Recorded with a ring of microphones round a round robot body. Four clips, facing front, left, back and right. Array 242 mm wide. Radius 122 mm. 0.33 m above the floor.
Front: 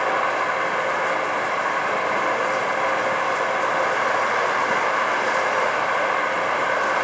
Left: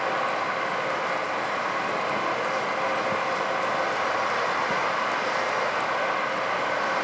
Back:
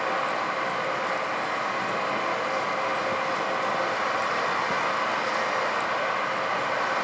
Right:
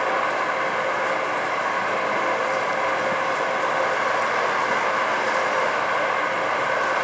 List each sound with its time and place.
0.0 s running water: 30° right, 0.8 m